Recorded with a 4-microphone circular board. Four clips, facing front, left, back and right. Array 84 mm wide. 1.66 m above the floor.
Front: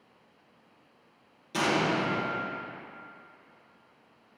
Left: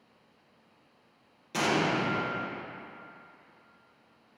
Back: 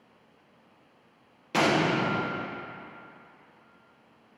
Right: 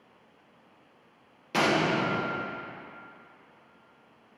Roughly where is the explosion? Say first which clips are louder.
Right 3 dB, back 3 dB; behind right.